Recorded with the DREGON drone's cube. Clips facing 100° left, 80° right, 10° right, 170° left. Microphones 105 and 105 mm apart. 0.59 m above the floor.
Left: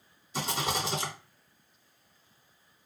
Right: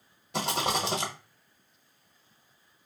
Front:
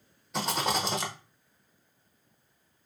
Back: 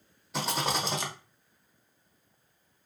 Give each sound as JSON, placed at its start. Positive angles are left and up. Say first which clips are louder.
{"t": 0.3, "sound": "a rattle", "louder": "right 3 dB, front 1 dB", "azimuth_deg": -105, "distance_m": 1.0}